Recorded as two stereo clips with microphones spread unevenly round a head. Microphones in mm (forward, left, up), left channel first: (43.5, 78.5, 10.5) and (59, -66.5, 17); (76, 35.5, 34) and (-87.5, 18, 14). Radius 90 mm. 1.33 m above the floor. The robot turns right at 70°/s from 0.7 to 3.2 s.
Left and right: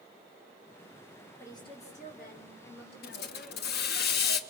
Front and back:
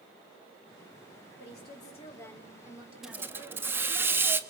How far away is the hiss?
About 1.1 m.